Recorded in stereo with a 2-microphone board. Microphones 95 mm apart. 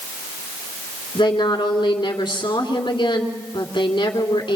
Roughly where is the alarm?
I don't hear an alarm.